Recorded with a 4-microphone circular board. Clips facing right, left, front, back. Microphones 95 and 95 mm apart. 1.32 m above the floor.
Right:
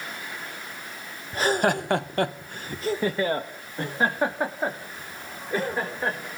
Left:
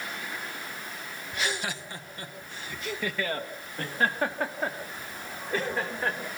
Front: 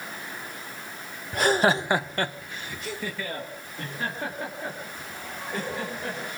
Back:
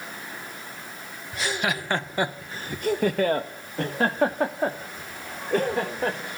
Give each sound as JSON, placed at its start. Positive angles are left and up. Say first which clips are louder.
{"t": 1.3, "sound": "laughter", "louder": "right 10 dB, front 7 dB", "azimuth_deg": -40, "distance_m": 0.8}